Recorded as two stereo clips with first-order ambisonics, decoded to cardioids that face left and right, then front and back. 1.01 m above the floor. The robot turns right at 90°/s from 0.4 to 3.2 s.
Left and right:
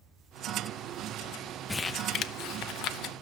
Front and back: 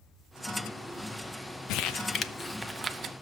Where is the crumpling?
5° left, 0.7 m; by 3.1 s 135° left, 0.7 m.